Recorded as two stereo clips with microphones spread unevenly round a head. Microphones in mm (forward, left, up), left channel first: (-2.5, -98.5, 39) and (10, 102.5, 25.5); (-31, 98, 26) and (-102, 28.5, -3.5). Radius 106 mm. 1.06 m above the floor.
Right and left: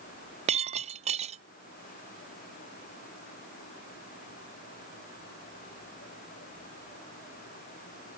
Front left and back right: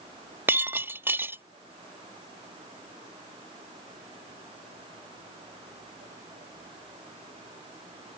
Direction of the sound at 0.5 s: 150° left.